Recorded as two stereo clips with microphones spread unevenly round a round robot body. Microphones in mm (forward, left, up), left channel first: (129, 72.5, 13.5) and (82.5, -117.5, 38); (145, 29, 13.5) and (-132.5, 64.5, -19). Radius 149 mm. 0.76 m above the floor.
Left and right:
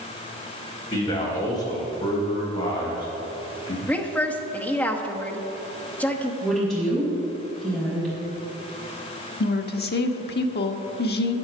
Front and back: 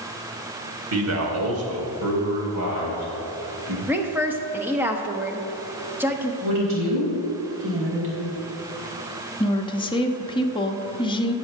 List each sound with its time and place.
0.9 s a man speaking: 140° left, 2 m
3.9 s a woman speaking: 125° left, 0.9 m
6.4 s a woman speaking: 170° left, 4.5 m
9.4 s a woman speaking: 70° left, 1.1 m